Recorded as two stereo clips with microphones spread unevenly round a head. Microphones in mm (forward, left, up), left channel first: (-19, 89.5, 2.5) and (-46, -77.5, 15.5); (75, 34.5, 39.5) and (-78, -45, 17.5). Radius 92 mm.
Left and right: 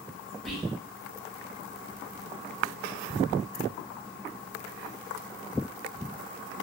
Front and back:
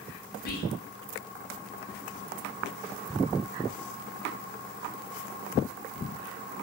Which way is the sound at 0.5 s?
5° right.